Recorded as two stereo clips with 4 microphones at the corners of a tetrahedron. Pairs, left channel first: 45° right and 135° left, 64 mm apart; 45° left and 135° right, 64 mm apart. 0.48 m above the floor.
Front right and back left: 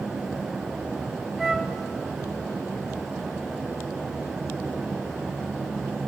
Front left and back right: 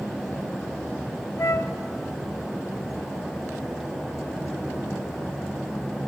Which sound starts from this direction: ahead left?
A flute, at 1.4 s.